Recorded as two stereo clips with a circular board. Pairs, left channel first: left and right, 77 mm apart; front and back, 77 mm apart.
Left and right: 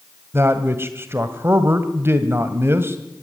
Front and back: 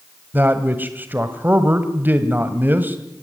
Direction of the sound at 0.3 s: 130° right.